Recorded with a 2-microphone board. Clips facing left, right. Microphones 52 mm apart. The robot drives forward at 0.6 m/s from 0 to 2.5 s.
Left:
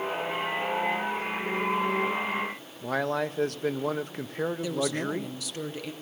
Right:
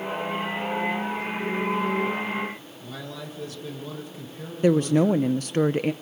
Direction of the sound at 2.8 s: 60° left (ahead or behind).